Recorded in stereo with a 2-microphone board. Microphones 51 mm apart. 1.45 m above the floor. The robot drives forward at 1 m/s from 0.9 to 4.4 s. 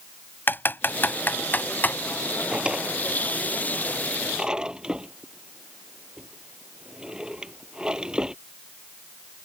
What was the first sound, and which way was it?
Typing on a keyboard, 40° left (ahead or behind).